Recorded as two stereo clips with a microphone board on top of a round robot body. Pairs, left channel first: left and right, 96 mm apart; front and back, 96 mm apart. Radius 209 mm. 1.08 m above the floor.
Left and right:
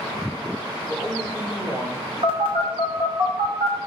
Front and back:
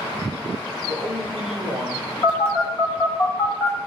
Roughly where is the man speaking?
Behind right.